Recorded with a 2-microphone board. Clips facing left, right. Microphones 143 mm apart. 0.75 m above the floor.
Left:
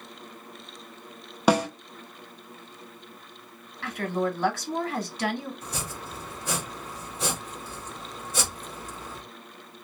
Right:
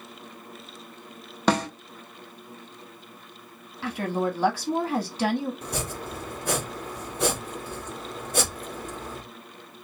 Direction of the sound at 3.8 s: 30° right (ahead or behind).